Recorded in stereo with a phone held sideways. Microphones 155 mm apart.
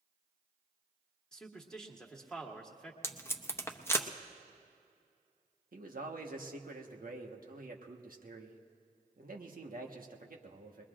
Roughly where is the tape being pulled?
Centre.